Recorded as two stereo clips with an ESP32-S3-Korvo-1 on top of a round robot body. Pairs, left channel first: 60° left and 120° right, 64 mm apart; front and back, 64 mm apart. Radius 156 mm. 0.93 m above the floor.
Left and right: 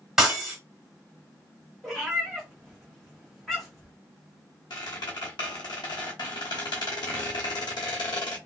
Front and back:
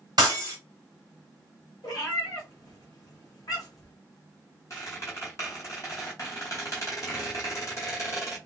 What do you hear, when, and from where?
0.2 s breaking glass: 160° left, 0.8 m
1.8 s a cat meowing: 25° right, 1.1 m
4.7 s a squeak: 45° left, 0.8 m